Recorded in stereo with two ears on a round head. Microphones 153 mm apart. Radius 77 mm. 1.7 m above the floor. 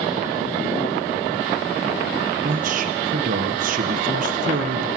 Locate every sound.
2.4 s a man speaking: 50° right (ahead or behind), 1.4 m